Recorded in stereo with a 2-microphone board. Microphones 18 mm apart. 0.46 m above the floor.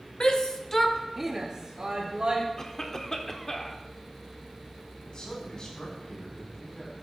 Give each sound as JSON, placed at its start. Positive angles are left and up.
{"t": 0.2, "sound": "a shout", "side_deg": 45, "distance_m": 1.1}
{"t": 2.6, "sound": "a cough", "side_deg": 25, "distance_m": 1.0}
{"t": 5.0, "sound": "a man speaking", "side_deg": 45, "distance_m": 3.5}